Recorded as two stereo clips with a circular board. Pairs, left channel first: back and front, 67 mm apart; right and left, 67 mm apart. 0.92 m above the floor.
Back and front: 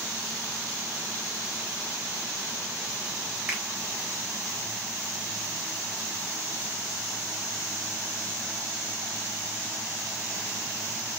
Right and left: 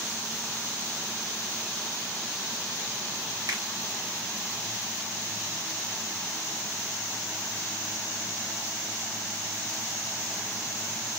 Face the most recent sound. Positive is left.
turn(degrees=70)